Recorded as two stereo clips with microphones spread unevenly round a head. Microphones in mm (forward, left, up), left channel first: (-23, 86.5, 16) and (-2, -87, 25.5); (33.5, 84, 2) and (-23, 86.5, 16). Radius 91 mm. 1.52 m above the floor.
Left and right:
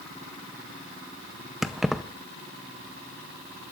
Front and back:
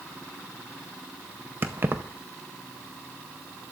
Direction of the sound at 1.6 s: 170° right.